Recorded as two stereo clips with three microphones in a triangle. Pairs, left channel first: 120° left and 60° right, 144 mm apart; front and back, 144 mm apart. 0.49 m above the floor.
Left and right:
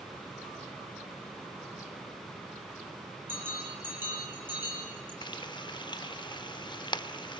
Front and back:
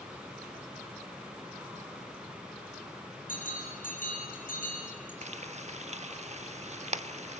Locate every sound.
3.3 s a bell: 15° left, 8 m
5.2 s frying: 170° left, 0.9 m